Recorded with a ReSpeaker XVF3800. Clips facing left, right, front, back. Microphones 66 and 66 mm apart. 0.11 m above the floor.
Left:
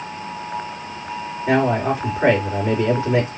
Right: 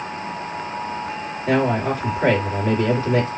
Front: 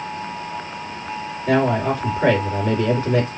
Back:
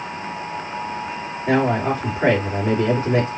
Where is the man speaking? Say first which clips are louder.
Left 1 dB, even; 145° left, 1.9 m.